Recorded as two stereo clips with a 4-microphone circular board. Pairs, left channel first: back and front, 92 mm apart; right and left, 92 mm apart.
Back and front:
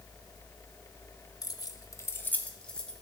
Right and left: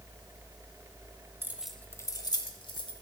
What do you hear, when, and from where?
1.4 s keys jangling: 150° left, 0.9 m; by 2.9 s 100° right, 1.9 m